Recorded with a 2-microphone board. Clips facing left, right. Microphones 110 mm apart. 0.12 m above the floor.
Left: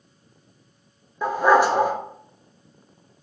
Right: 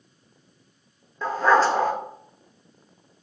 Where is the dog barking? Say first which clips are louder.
Left 2 dB; 15° left (ahead or behind), 0.5 m.